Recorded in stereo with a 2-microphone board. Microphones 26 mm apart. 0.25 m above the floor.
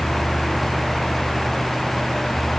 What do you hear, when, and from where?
Only background noise.